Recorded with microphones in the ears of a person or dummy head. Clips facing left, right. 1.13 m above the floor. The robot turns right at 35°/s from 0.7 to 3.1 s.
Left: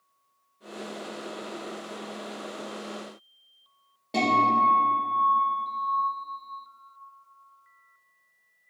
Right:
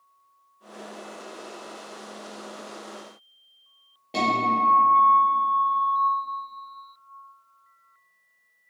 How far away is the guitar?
About 0.9 m.